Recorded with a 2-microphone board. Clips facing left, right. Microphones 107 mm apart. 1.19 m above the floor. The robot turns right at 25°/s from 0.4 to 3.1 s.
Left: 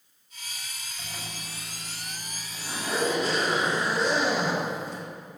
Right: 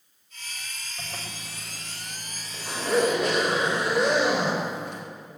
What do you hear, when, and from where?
1.0 s a zipper: 50° right (ahead or behind), 4.5 m; by 5.0 s 75° right (ahead or behind), 4.5 m